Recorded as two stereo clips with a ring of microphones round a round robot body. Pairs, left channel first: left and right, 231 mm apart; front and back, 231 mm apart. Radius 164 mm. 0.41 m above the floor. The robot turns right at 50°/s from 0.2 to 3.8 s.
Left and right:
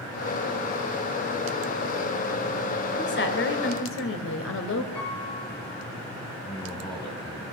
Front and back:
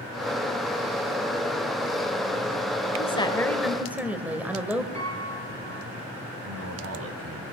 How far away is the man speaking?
About 3 m.